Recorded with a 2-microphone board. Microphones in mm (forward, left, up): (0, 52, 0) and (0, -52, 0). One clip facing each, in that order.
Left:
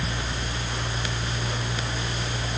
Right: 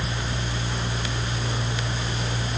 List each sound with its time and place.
Only background noise.